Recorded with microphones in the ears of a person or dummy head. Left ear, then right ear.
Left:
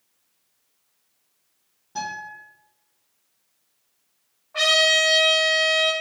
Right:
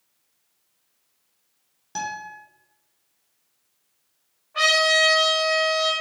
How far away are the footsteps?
No footsteps in this recording.